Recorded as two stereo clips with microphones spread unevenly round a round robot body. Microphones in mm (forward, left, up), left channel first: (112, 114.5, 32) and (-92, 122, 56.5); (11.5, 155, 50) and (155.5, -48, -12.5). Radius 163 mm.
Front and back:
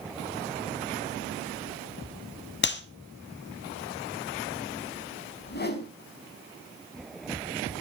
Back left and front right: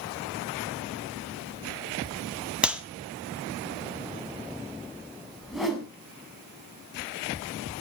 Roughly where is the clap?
Ahead left.